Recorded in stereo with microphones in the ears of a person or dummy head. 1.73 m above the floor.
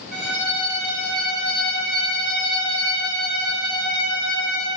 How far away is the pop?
No pop in this recording.